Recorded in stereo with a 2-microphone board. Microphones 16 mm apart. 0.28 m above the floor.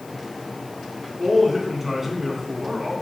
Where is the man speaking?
25° right (ahead or behind), 2.5 m.